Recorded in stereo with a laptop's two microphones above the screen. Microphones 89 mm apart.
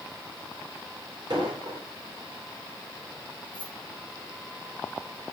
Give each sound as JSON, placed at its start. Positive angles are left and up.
{"t": 1.3, "sound": "an explosion", "side_deg": -75, "distance_m": 4.0}
{"t": 3.5, "sound": "keys jangling", "side_deg": -85, "distance_m": 6.5}